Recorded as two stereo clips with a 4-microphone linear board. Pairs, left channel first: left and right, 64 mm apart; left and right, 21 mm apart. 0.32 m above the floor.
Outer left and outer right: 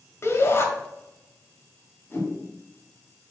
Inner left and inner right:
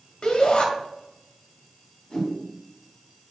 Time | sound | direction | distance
0.2 | a shout | 45° left (ahead or behind) | 1.4 m
2.1 | a whoosh | 40° left (ahead or behind) | 2 m